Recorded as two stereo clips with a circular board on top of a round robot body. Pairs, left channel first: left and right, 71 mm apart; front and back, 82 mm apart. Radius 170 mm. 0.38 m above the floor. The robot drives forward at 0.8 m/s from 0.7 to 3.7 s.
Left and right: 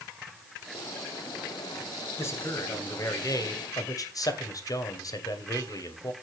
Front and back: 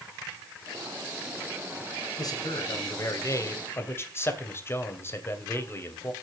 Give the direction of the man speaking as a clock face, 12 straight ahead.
11 o'clock.